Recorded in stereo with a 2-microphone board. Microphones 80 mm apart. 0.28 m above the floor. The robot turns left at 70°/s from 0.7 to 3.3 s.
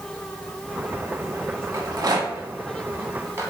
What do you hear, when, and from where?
1.7 s a rattle: 35° right (ahead or behind), 0.7 m; by 3.5 s 30° right (ahead or behind), 0.7 m